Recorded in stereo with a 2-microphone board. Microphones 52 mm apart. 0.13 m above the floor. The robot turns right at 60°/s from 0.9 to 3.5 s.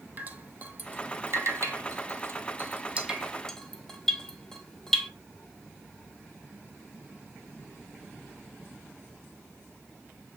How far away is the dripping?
About 0.8 m.